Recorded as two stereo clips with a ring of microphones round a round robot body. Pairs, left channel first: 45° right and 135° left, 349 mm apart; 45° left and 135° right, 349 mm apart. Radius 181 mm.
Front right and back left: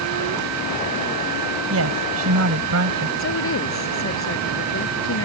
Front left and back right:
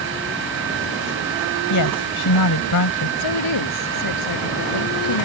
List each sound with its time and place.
1.7 s a woman speaking: 85° left
3.2 s a woman speaking: 10° left